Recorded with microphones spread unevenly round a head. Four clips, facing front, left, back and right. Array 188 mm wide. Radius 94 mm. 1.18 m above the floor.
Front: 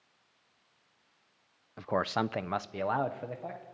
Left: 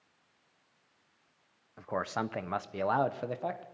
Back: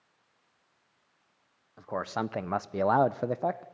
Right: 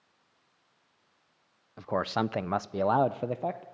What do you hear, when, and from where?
1.8 s a man speaking: 30° right, 0.6 m; by 3.6 s 160° right, 0.9 m